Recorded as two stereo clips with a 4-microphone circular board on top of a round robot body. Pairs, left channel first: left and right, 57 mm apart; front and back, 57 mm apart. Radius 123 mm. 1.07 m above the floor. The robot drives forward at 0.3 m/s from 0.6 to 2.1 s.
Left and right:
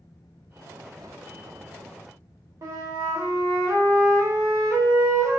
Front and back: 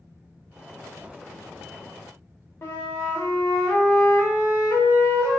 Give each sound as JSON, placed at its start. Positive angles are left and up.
{"t": 2.6, "sound": "a flute", "azimuth_deg": -50, "distance_m": 0.6}